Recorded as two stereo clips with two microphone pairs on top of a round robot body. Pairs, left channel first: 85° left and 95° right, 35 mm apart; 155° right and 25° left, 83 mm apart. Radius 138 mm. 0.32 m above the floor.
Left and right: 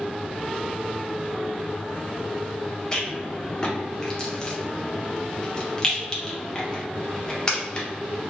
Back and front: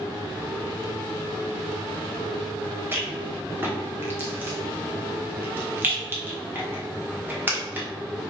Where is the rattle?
40° left, 1.6 m.